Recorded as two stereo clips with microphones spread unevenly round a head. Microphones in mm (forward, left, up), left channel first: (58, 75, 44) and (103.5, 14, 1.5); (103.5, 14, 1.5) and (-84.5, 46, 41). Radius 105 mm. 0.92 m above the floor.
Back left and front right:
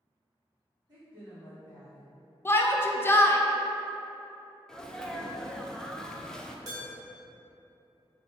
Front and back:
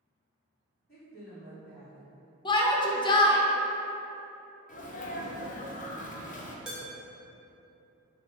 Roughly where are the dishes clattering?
Right.